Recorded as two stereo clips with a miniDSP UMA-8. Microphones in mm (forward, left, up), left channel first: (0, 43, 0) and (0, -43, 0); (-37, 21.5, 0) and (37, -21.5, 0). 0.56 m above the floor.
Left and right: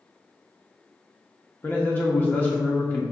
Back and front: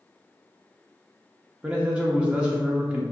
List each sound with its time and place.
1.6 s a man speaking: 35° left, 1.0 m